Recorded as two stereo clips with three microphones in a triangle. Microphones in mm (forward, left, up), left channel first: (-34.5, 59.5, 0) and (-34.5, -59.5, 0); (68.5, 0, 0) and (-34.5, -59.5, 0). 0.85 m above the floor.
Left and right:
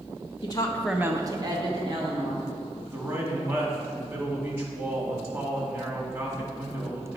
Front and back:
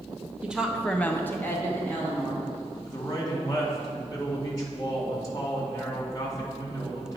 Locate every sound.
0.4 s a woman speaking: 130° left, 0.8 m; by 2.5 s 45° right, 2.5 m
2.9 s a man speaking: 25° right, 2 m